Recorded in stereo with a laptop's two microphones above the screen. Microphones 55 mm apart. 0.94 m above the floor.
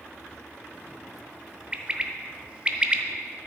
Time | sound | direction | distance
1.7 | a bird | 25° right (ahead or behind) | 0.6 m